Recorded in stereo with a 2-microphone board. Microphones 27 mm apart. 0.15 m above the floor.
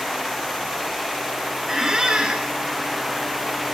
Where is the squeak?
25° right (ahead or behind), 1.2 m.